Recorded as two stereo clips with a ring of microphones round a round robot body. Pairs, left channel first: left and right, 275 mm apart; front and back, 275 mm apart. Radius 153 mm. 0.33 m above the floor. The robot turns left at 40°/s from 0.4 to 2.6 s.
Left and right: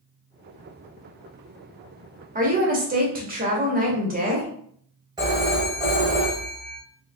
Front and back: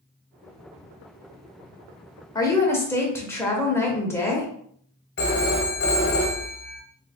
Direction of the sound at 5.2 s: 20° right.